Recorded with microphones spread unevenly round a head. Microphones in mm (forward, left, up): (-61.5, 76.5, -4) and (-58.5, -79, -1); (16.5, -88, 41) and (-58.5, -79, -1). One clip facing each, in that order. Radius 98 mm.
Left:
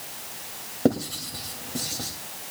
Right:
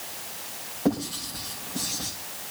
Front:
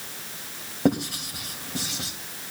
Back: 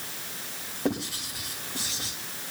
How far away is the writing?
About 2.5 m.